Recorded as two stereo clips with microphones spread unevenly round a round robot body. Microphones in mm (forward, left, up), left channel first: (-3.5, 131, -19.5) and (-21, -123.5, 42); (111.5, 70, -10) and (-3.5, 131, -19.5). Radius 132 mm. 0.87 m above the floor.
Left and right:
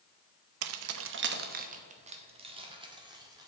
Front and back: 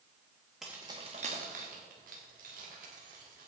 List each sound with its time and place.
0.6 s keys jangling: 120° right, 0.5 m; by 3.5 s 170° right, 2.0 m